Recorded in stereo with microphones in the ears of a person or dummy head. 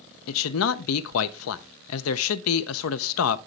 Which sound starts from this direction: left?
A man speaking, at 0.3 s.